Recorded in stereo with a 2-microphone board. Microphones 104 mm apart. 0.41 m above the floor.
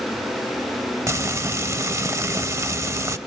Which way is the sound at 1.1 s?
30° right (ahead or behind).